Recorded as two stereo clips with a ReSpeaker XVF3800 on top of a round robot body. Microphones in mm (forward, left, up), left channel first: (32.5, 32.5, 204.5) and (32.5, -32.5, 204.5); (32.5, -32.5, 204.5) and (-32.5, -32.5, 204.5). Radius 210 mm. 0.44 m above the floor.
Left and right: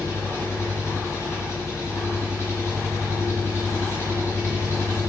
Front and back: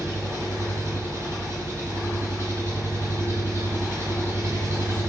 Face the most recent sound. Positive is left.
turn(degrees=140)